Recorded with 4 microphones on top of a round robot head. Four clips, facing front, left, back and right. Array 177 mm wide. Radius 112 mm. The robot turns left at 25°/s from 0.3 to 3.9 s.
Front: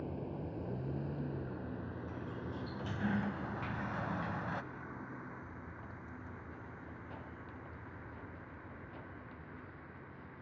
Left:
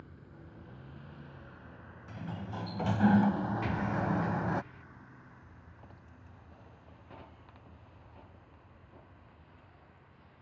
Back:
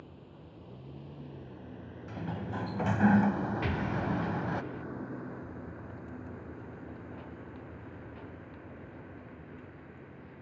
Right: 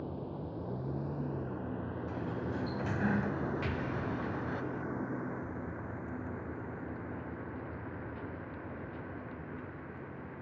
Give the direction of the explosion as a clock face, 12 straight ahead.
6 o'clock.